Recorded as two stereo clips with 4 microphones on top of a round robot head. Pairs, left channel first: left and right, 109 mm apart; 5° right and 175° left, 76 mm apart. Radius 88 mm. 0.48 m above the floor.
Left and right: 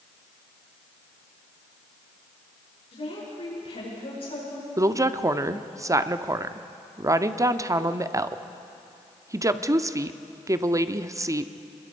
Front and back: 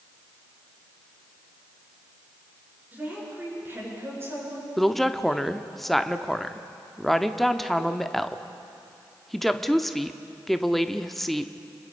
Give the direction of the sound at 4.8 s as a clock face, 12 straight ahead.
3 o'clock.